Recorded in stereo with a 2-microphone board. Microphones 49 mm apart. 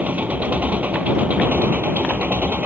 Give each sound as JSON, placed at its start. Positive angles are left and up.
{"t": 0.0, "sound": "an engine running", "side_deg": -35}